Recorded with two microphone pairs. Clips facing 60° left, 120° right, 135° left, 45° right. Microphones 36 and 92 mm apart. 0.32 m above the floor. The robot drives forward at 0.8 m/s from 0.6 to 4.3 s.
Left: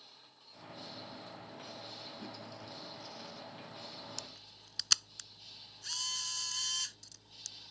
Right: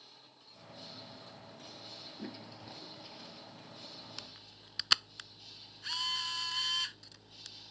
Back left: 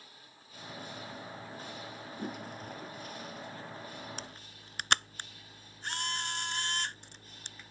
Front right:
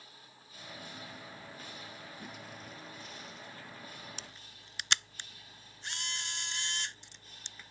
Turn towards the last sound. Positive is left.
turn(degrees=180)